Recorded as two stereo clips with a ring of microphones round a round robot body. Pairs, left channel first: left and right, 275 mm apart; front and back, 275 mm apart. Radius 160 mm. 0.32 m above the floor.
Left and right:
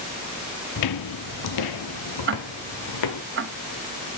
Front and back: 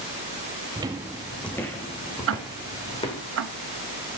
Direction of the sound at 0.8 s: 105° left.